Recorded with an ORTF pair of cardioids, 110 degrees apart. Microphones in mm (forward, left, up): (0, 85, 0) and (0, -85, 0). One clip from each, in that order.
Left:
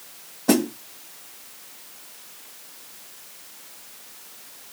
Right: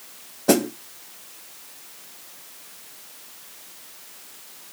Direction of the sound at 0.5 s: 10° right.